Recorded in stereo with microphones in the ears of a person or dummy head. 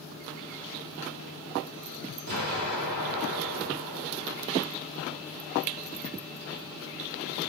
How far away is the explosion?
About 1.2 m.